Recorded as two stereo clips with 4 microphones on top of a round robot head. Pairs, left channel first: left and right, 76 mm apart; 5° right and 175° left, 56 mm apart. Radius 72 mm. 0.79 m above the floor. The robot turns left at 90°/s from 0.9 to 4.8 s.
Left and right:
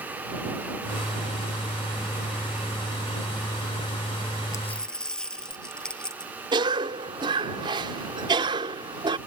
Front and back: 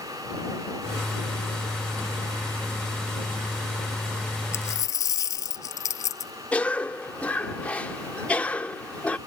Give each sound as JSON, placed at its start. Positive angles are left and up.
{"t": 4.5, "sound": "a dropped coin", "azimuth_deg": 30}
{"t": 6.5, "sound": "a cough", "azimuth_deg": -75}